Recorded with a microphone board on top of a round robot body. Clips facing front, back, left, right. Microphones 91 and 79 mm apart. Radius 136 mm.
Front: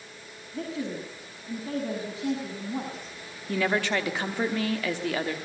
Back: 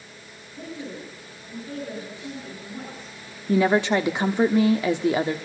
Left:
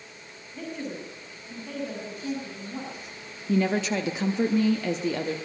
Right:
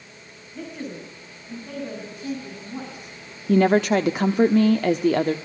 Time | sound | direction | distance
0.5 | a woman speaking | 5° right | 7 m
3.5 | a woman speaking | 110° right | 1.3 m